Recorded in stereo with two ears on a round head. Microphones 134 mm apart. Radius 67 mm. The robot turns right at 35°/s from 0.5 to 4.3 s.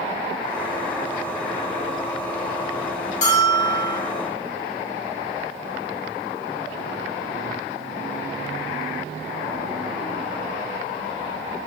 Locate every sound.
3.2 s a bell: 50° left (ahead or behind), 1.4 m; by 4.0 s 30° left (ahead or behind), 1.4 m